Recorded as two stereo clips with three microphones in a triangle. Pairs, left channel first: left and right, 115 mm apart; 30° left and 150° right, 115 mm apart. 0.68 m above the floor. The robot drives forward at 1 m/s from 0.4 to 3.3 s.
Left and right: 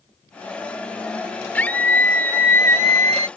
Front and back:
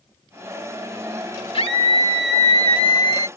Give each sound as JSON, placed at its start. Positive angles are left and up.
{"t": 1.5, "sound": "a scream", "azimuth_deg": 15}